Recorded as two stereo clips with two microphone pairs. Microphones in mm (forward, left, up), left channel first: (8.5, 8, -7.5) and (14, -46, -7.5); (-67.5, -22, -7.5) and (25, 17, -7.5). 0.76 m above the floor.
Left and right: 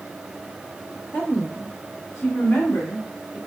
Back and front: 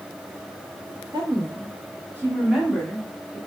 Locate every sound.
1.1 s a woman speaking: 40° left, 0.9 m; by 3.4 s 125° left, 1.3 m